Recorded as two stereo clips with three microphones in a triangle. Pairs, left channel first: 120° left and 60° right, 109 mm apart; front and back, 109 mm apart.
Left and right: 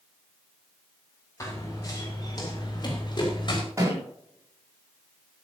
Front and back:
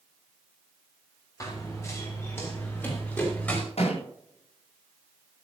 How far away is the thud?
About 9 m.